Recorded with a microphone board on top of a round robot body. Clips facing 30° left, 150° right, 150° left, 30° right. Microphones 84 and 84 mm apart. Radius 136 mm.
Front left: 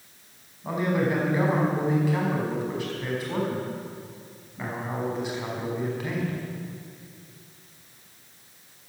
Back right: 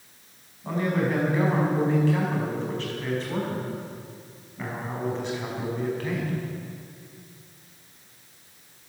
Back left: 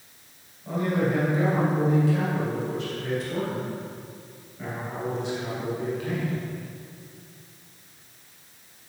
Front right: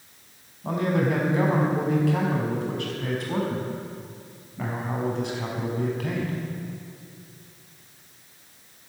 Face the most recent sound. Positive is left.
turn(degrees=-50)